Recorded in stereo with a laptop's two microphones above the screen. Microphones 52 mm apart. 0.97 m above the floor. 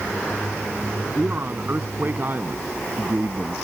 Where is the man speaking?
40° right (ahead or behind).